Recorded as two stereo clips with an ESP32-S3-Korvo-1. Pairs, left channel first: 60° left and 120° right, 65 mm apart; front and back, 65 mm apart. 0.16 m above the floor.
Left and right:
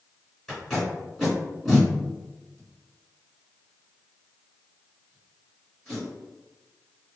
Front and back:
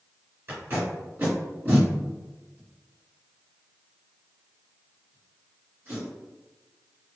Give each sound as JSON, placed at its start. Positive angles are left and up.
{"t": 0.5, "sound": "tape being pulled", "azimuth_deg": 145, "distance_m": 1.8}